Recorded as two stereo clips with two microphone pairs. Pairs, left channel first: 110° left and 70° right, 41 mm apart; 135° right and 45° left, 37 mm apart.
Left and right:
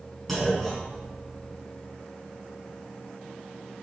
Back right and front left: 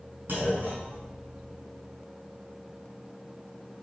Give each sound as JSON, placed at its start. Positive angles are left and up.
{"t": 0.3, "sound": "a clunk", "azimuth_deg": 10, "distance_m": 4.5}